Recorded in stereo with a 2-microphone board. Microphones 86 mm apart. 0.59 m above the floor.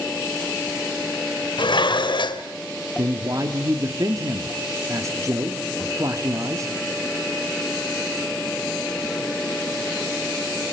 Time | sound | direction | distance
1.6 | dishes clattering | 65° left (ahead or behind) | 1.4 m
3.0 | a man speaking | 40° right (ahead or behind) | 1.3 m